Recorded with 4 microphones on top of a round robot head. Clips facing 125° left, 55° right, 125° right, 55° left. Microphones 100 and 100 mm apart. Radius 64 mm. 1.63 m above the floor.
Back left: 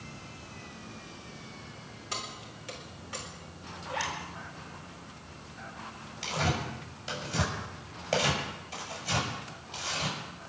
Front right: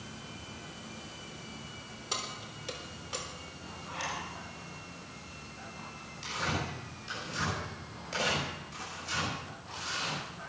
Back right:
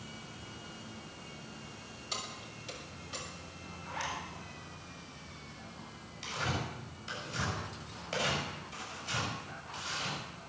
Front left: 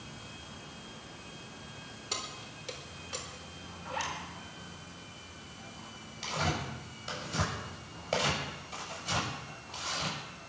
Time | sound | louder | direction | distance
2.1 | keys jangling | even, front left 1 dB | 15° left | 3.5 m
3.9 | a zipper | back left 4 dB, front left 2 dB | 85° left | 4.5 m
6.2 | tearing paper | back left 3 dB, front left 3 dB | 90° left | 7 m